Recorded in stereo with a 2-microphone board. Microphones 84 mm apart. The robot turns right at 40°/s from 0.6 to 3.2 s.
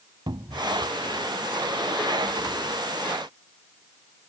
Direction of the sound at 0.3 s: 65° right (ahead or behind).